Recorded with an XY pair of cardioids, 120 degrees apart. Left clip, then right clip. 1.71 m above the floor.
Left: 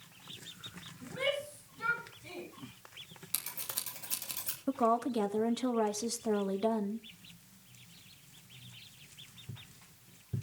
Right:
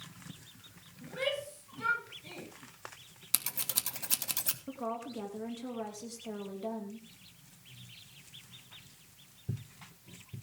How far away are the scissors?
About 2.5 m.